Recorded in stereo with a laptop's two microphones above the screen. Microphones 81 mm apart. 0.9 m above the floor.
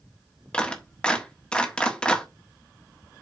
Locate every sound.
0.5 s a clap: 10° left (ahead or behind), 1.3 m